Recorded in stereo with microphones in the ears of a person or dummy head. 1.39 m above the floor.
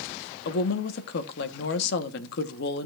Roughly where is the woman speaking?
Left.